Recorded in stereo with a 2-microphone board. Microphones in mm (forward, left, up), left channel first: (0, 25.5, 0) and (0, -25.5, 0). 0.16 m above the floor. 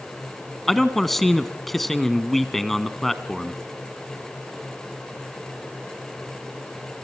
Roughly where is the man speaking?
Centre.